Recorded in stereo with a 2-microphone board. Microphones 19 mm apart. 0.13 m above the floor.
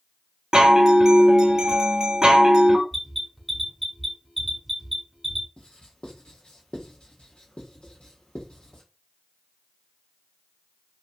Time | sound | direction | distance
0.5 | a chime | 40° right (ahead or behind) | 0.8 m
2.9 | an alarm | centre (ahead or behind) | 1.2 m
5.6 | writing | 65° left (ahead or behind) | 1.1 m